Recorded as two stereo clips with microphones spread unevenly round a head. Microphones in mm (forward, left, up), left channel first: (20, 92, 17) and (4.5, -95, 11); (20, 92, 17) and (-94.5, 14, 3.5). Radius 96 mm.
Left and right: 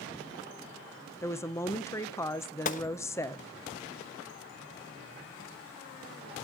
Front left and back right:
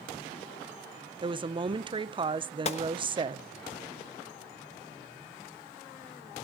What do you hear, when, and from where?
1.2 s a woman speaking: 160° left, 0.7 m
2.6 s a gunshot: 45° left, 1.0 m